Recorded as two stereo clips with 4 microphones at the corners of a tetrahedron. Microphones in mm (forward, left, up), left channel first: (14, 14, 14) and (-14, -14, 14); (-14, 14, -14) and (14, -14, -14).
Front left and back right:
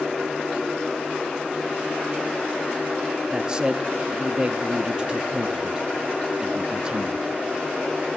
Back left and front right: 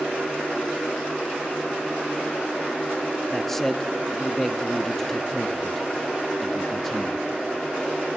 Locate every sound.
3.3 s a man speaking: 155° right, 0.7 m